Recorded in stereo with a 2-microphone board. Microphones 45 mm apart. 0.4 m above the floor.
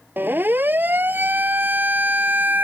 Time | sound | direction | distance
0.2 | a siren | 45° right (ahead or behind) | ?